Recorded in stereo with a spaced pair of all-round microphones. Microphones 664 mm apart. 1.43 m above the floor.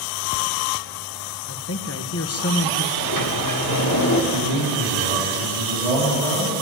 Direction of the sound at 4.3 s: 85° right.